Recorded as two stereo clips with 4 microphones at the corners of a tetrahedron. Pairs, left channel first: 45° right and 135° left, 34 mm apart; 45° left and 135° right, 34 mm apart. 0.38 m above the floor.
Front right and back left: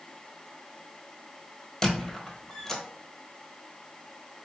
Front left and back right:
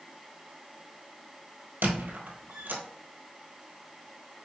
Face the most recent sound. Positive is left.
turn(degrees=-115)